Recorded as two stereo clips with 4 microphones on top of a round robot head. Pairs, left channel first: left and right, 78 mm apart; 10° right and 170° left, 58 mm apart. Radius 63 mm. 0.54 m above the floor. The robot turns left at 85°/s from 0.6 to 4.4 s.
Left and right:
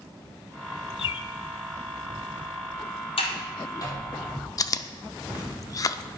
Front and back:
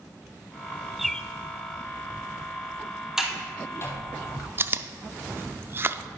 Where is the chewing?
125° left, 0.6 m.